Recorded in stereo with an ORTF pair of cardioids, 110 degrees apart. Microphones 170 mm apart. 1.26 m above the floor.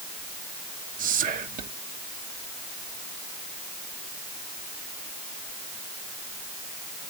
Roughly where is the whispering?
Ahead right.